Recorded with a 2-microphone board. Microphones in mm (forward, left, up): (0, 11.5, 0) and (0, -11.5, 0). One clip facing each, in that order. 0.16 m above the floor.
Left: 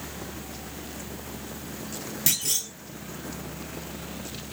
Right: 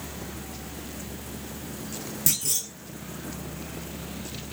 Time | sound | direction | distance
2.3 | a clunk | 35° left (ahead or behind) | 1.1 m